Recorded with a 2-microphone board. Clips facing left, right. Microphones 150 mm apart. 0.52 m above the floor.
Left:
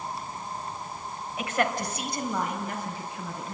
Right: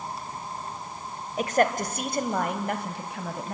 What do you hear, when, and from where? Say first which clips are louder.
1.4 s a woman speaking: right 5 dB; 40° right (ahead or behind), 3 m; by 3.5 s 75° right (ahead or behind), 4 m